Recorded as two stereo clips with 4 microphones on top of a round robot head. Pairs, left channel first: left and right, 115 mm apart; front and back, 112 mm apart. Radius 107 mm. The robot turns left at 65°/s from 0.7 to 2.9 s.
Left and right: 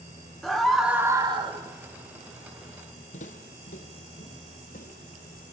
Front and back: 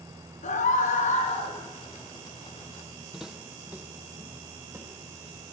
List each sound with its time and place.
0.4 s a scream: straight ahead, 4.5 m; by 1.6 s 55° right, 4.5 m
3.1 s footsteps: 95° left, 2.5 m; by 5.4 s 125° left, 4.5 m